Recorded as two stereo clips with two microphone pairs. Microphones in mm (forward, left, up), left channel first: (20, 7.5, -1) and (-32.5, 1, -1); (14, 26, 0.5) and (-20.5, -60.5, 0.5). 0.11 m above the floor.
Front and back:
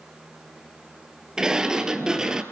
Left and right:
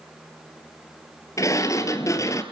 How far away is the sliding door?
About 2.5 m.